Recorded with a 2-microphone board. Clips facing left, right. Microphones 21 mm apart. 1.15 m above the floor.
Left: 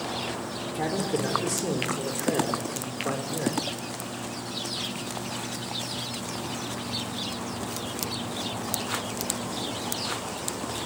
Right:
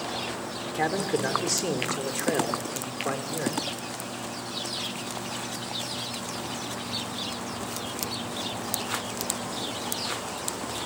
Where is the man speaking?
55° right (ahead or behind), 3 m; by 3.6 s 10° right (ahead or behind), 3 m.